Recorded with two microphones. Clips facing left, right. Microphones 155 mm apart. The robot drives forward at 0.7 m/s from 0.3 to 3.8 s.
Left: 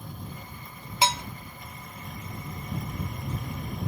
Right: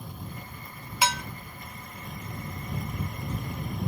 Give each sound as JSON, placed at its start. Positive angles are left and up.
{"t": 1.0, "sound": "dishes clattering", "side_deg": 25, "distance_m": 0.7}